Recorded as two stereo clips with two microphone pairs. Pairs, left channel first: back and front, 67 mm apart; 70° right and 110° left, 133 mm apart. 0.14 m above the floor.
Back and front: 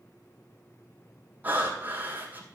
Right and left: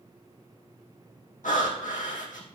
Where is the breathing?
65° right, 2.5 m.